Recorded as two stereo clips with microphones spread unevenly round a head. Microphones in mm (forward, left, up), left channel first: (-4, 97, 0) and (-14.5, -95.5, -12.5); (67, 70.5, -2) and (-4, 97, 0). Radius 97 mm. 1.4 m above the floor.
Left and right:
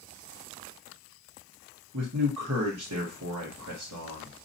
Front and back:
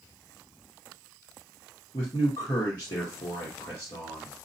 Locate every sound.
1.9 s a man speaking: 85° right, 1.5 m